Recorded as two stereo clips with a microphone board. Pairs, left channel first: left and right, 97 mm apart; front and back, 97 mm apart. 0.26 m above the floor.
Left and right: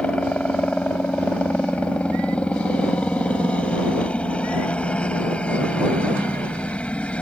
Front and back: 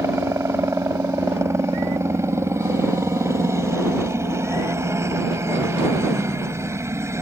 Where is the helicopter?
155° left.